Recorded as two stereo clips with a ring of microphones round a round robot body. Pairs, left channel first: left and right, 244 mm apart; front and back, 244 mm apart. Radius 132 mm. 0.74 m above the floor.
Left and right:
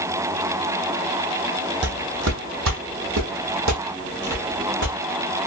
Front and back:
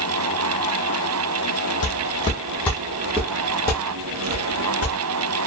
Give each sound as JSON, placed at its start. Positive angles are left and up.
{"t": 1.8, "sound": "footsteps", "azimuth_deg": -55, "distance_m": 1.2}